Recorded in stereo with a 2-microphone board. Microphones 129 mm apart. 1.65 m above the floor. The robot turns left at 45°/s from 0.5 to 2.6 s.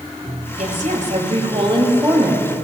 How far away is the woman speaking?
About 2.5 m.